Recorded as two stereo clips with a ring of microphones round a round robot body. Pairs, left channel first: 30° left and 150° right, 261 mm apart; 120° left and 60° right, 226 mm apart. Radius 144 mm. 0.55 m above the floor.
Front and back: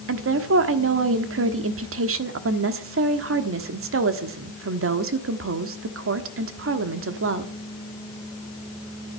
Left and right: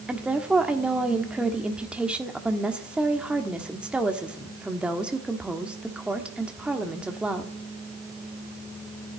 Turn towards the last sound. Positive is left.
turn(degrees=-145)